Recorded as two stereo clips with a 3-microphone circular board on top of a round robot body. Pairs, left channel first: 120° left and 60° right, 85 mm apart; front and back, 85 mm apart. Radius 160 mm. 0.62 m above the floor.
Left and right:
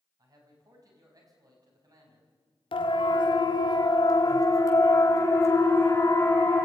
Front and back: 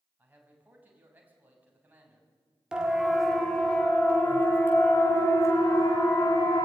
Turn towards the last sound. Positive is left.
turn(degrees=50)